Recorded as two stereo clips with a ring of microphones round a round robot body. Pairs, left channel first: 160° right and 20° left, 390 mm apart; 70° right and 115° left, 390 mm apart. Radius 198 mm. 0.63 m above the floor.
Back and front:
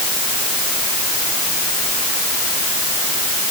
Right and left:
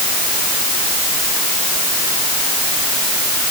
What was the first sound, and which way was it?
Only background noise.